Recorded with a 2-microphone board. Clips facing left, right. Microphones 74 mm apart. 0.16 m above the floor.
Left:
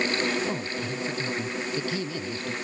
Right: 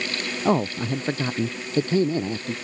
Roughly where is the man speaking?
Right.